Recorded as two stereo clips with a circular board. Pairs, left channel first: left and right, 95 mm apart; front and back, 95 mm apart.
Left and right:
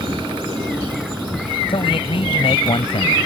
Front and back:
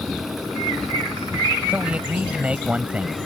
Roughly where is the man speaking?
Left.